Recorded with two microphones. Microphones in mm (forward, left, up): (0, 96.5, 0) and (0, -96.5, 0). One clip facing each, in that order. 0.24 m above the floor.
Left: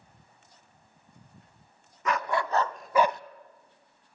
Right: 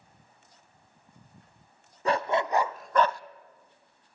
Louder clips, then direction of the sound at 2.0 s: Right 3 dB; 30° right (ahead or behind).